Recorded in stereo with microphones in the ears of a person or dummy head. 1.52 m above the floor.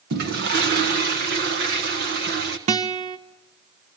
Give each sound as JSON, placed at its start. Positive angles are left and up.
{"t": 0.1, "sound": "a toilet flushing", "side_deg": -55, "distance_m": 1.4}
{"t": 2.7, "sound": "a guitar", "side_deg": -35, "distance_m": 0.8}